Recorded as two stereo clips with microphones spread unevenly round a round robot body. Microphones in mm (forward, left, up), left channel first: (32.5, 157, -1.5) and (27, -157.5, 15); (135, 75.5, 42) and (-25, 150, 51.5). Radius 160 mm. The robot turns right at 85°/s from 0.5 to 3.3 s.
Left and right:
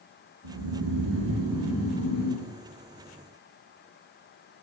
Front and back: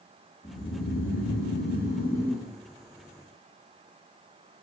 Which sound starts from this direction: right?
Snoring, at 0.4 s.